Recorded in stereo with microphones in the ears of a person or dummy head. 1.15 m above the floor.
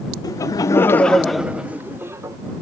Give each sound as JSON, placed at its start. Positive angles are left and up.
{"t": 0.2, "sound": "laughter", "side_deg": 15}